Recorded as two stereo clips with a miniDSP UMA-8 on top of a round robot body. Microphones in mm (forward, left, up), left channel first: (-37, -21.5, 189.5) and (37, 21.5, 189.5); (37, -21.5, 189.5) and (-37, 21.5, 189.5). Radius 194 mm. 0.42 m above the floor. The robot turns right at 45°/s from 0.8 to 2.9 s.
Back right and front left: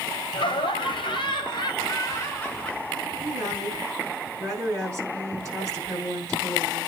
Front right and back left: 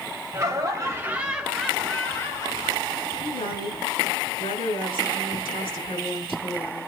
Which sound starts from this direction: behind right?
Laughter, at 0.3 s.